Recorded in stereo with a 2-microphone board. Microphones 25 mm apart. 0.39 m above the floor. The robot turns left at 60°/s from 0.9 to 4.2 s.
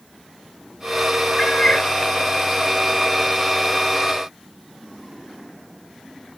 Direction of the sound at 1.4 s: 160° left.